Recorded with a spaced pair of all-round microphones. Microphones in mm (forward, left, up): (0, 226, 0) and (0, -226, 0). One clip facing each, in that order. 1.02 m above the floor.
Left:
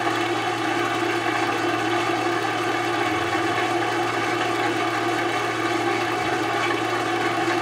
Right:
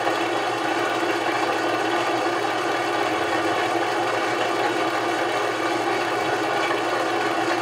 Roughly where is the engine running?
Left.